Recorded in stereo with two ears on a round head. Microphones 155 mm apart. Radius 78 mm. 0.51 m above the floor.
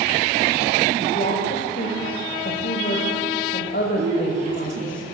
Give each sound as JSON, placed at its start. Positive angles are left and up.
{"t": 1.0, "sound": "a woman speaking", "side_deg": 50, "distance_m": 2.5}
{"t": 4.0, "sound": "a woman speaking", "side_deg": -40, "distance_m": 8.0}